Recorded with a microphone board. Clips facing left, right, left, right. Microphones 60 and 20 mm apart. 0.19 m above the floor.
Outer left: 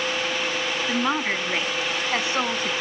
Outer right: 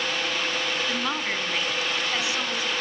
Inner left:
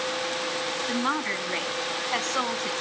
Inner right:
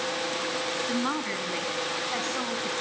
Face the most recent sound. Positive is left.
turn(degrees=45)  # may be behind; listen again after turning